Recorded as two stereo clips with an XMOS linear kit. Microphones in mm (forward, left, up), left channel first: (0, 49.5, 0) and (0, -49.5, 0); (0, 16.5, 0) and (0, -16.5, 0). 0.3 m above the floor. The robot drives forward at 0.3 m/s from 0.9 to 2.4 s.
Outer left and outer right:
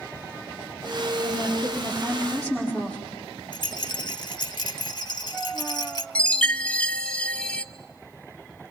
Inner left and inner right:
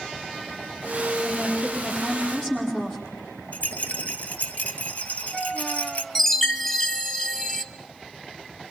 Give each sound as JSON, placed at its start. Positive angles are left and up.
{"t": 1.2, "sound": "a woman speaking", "side_deg": 15, "distance_m": 8.0}
{"t": 3.5, "sound": "a rattle", "side_deg": 55, "distance_m": 1.5}
{"t": 6.2, "sound": "a chime", "side_deg": 10, "distance_m": 1.3}